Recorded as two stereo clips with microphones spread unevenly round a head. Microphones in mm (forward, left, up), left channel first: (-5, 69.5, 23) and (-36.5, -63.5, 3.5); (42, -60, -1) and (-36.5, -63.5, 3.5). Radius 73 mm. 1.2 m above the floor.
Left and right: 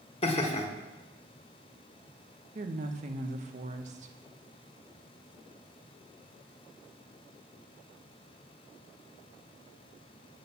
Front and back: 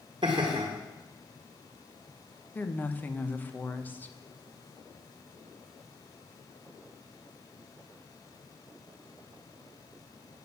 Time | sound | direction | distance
0.2 | laughter | 125° left | 1.6 m
2.5 | a woman speaking | 65° right | 1.1 m